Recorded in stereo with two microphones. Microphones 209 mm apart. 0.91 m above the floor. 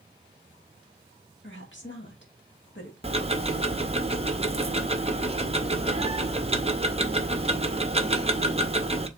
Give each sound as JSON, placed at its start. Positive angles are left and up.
{"t": 1.4, "sound": "a woman speaking", "side_deg": 55, "distance_m": 1.6}
{"t": 3.0, "sound": "ticking", "side_deg": -30, "distance_m": 0.6}